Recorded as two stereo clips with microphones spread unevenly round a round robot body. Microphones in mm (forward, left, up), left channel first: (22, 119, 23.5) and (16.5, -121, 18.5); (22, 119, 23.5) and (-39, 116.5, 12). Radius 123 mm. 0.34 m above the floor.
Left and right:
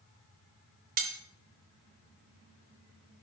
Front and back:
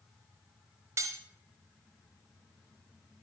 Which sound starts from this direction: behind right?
Cutlery clinking, at 1.0 s.